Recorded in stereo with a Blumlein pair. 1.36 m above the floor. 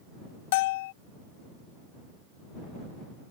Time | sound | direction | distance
0.5 | a bell | 50° left | ?